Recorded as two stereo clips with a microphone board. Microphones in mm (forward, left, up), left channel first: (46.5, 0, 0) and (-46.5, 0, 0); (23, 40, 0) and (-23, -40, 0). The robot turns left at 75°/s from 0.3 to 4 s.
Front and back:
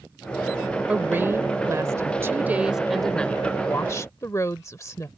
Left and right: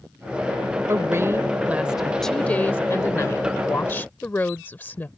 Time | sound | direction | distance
0.9 | a woman speaking | 115° right | ?